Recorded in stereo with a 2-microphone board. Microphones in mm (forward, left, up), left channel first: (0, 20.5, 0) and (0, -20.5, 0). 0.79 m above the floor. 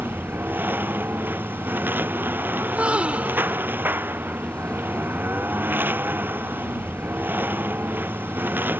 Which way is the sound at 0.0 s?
55° right (ahead or behind).